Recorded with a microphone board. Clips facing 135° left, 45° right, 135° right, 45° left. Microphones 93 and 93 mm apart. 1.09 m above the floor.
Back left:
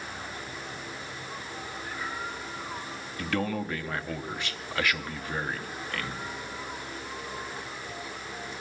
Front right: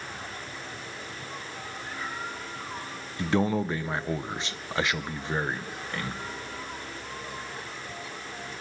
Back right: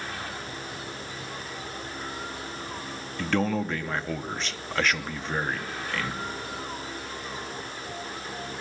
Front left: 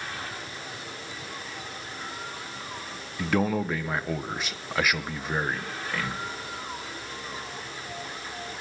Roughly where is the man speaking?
Ahead right.